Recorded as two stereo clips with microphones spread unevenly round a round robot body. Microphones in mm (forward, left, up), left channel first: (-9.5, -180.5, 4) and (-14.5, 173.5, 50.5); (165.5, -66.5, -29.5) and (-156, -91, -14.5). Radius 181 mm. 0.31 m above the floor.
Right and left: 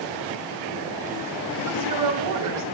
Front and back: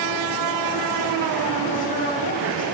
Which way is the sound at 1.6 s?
65° left.